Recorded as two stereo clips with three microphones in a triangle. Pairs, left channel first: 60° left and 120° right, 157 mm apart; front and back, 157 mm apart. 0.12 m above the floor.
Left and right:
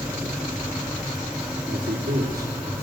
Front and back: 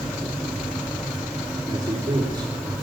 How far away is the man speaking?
About 4.5 m.